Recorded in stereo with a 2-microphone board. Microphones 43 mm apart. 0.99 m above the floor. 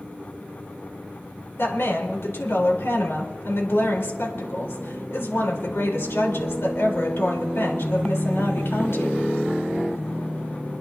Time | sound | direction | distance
1.6 | a woman speaking | 70° left (ahead or behind) | 3.5 m